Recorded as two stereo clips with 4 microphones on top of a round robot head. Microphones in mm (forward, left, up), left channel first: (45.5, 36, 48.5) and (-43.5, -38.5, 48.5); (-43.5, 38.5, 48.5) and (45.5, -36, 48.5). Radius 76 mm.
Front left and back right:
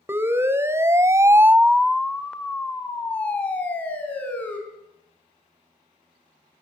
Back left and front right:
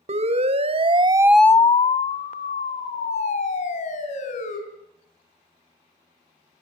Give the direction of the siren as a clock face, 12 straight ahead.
2 o'clock.